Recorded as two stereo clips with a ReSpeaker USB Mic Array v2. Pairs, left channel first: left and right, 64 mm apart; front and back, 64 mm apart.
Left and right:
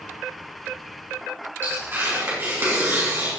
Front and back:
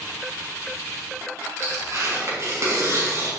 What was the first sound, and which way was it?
Tearing paper, 140° right.